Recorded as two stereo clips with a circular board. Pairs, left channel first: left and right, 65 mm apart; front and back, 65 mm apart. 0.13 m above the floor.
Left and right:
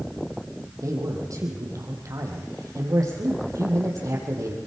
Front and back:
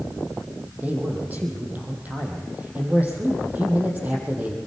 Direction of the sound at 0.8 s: 115° right.